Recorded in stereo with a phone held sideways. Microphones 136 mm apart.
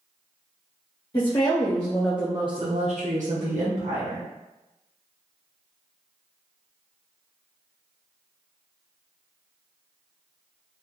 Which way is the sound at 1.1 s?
40° left (ahead or behind).